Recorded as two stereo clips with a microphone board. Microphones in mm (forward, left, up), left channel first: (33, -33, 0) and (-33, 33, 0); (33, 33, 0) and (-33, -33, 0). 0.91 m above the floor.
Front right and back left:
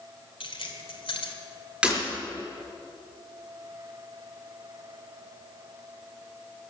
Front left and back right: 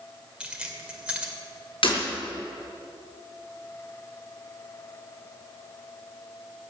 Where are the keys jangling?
55° right, 2.5 m.